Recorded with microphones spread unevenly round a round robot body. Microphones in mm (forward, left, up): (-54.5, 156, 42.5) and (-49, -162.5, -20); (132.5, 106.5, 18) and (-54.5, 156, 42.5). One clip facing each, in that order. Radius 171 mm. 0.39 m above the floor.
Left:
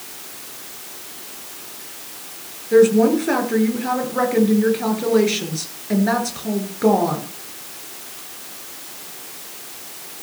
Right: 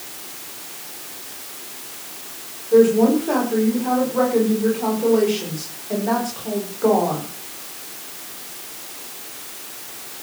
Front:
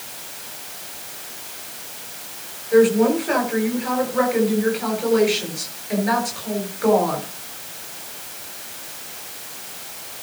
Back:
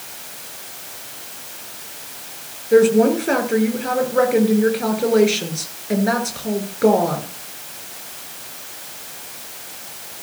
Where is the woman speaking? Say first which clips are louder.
Left 1 dB, back 2 dB; 130° left, 7.5 m.